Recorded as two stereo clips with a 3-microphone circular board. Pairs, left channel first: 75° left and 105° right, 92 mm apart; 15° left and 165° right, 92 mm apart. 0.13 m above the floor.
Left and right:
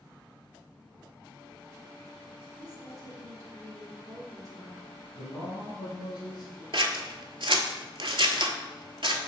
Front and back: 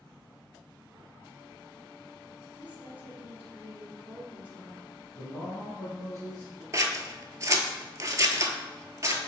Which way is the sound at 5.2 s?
65° left.